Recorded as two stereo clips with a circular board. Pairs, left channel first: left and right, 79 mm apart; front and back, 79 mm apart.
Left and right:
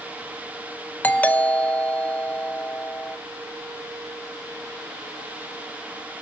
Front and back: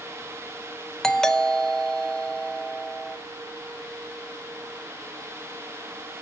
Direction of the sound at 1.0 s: 70° left.